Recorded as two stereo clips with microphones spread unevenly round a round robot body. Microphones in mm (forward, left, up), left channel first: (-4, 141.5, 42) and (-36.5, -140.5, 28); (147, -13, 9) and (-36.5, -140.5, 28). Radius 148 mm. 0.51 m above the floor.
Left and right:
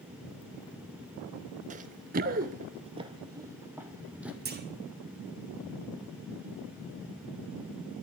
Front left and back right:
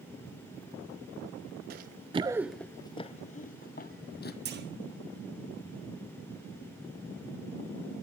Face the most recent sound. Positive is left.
turn(degrees=-130)